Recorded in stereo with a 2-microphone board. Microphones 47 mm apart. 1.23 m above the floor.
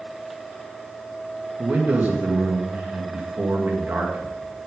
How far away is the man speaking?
About 2 m.